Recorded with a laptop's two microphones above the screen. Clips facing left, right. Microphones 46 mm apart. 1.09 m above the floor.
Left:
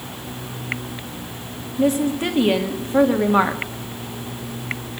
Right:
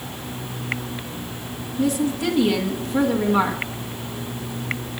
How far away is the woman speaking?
About 1.8 m.